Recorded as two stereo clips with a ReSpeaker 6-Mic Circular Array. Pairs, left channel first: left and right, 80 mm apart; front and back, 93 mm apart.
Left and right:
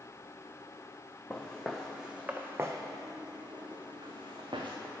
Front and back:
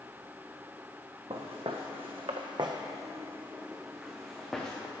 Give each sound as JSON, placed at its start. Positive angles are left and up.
{"t": 1.3, "sound": "footsteps", "azimuth_deg": 170, "distance_m": 1.0}